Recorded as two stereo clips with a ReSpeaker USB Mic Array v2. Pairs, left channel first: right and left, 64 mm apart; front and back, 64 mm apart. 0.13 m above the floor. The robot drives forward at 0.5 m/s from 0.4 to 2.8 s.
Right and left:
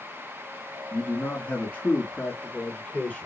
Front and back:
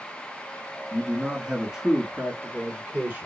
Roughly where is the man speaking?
Right.